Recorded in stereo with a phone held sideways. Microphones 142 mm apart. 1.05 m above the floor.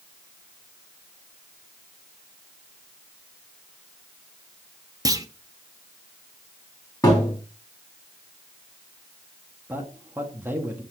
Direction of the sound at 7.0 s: 25° left (ahead or behind).